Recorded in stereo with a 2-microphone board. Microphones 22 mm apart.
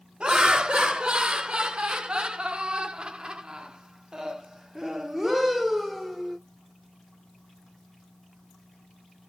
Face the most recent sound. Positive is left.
turn(degrees=-5)  # may be behind; listen again after turning